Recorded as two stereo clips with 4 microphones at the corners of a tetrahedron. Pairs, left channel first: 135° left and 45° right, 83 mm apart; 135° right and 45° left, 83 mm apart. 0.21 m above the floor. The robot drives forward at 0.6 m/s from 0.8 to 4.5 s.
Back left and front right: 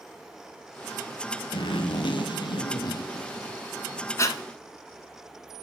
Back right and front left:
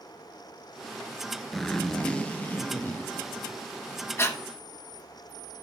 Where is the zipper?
135° left, 0.8 m; by 4.1 s 165° left, 2 m.